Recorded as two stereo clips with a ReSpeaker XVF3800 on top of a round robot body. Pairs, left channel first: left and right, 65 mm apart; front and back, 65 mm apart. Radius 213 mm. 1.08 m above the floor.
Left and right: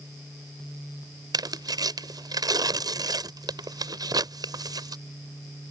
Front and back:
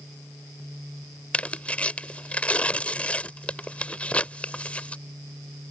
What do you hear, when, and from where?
1.3 s tearing paper: 70° right